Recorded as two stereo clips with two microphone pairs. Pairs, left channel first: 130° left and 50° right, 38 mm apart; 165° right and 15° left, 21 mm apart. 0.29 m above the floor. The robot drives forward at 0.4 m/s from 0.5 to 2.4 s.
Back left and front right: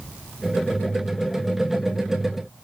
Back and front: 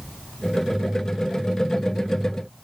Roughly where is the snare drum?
I don't hear a snare drum.